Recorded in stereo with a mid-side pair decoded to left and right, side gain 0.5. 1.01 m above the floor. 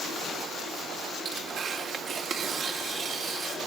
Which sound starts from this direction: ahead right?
Tearing paper, at 1.2 s.